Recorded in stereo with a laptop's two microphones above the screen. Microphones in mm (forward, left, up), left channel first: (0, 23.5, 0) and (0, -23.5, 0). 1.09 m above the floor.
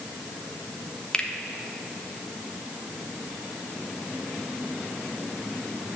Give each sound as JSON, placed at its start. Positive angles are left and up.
{"t": 1.1, "sound": "a finger snap", "side_deg": 20, "distance_m": 1.3}